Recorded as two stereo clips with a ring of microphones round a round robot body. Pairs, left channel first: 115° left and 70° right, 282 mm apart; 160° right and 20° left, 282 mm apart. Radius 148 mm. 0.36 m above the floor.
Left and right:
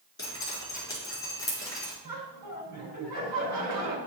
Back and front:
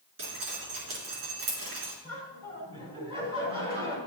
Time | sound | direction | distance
0.2 | dripping | 35° left | 4 m
2.0 | laughter | 50° right | 4 m